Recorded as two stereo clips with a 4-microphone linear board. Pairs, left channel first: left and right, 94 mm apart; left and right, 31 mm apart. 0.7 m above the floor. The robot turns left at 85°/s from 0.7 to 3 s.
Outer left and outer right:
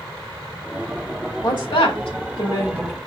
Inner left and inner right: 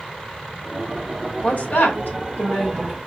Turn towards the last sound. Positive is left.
turn(degrees=0)